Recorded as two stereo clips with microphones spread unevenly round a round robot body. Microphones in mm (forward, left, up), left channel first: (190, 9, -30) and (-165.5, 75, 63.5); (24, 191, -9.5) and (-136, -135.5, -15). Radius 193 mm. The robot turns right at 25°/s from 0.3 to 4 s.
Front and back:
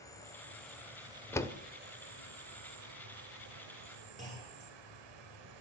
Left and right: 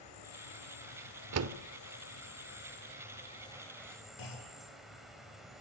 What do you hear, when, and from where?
0.0 s an insect: 60° left, 4 m; by 5.6 s 155° left, 4 m
1.3 s a door slam: 80° right, 1.1 m; by 1.6 s 70° right, 1.1 m
4.2 s a clunk: 95° left, 9.5 m